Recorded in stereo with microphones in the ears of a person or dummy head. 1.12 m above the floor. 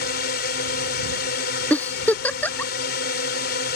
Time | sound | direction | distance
0.0 | a drone | 60° left (ahead or behind) | ?
1.7 | a giggle | 10° left (ahead or behind) | ?